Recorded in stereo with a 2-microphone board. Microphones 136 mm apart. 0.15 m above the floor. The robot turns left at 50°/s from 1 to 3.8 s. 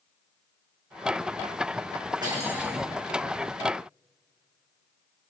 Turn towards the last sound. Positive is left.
turn(degrees=135)